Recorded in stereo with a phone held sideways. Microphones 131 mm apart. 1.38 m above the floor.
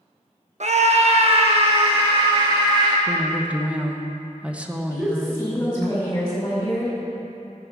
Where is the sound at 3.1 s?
10° right (ahead or behind), 1.1 m.